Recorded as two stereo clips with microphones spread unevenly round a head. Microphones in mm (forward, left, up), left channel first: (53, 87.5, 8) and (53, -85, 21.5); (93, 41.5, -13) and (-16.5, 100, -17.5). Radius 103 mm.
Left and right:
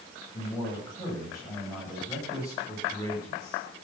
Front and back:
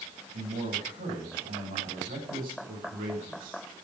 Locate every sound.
0.3 s a man speaking: 165° left, 7.5 m